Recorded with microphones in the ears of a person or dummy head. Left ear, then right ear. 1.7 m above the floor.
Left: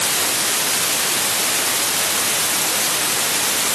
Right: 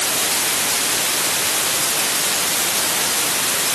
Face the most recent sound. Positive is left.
No sound to turn to.